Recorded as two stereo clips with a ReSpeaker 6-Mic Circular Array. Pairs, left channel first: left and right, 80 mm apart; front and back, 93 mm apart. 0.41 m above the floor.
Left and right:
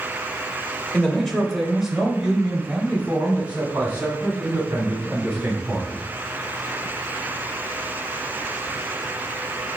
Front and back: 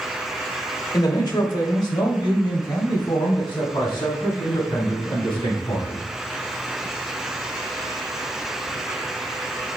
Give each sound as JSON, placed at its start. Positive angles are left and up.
{"t": 0.9, "sound": "a man speaking", "azimuth_deg": 20, "distance_m": 1.0}